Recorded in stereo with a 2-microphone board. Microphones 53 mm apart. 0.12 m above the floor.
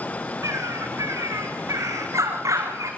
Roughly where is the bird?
Right.